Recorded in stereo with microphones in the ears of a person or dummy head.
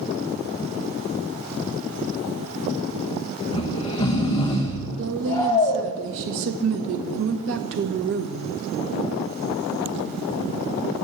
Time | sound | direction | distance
3.5 | snoring | 20° left (ahead or behind) | 1.1 m
5.0 | a woman speaking | 50° right (ahead or behind) | 0.9 m